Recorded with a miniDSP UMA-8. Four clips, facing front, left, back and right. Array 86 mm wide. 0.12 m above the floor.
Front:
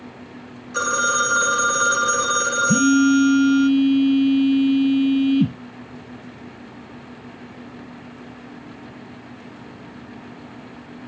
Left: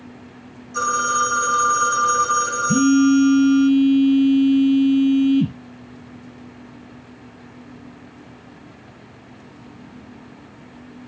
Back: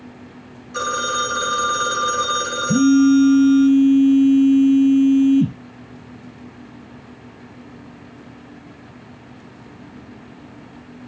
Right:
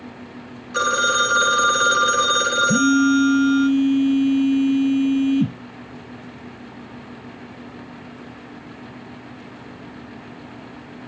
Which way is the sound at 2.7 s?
20° left.